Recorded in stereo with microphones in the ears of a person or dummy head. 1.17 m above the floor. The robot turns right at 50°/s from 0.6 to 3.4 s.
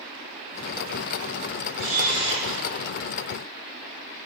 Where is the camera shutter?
110° right, 1.3 m; by 2.6 s 70° right, 1.3 m.